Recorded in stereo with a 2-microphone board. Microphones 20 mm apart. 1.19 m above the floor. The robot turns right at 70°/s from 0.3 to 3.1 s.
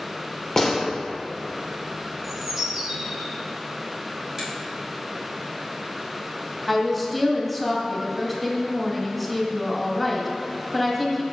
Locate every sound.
0.6 s a gunshot: 35° left (ahead or behind), 1.3 m; by 0.8 s 20° left (ahead or behind), 1.3 m
2.2 s a bird: 175° left, 1.7 m; by 3.3 s 125° right, 1.7 m
4.4 s a finger snap: 20° right (ahead or behind), 2.5 m
6.7 s a woman speaking: centre (ahead or behind), 1.7 m